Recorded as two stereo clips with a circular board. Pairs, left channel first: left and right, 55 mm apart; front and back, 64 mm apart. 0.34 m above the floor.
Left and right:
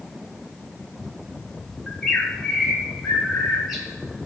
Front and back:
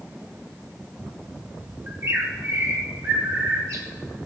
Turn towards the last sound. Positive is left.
turn(degrees=180)